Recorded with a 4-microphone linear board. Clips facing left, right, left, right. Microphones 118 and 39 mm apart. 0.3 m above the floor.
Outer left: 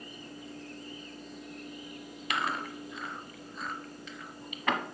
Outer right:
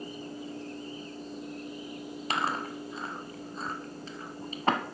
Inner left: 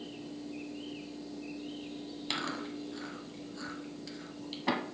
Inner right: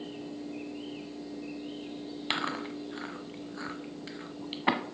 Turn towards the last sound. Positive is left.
turn(degrees=-35)  # may be behind; listen again after turning